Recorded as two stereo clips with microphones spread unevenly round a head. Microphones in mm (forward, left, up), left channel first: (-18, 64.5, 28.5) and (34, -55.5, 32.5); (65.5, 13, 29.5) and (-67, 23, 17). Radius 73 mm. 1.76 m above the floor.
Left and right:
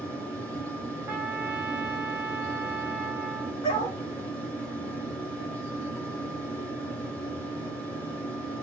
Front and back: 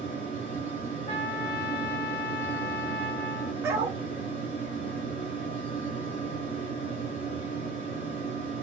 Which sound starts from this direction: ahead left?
A fan, at 0.0 s.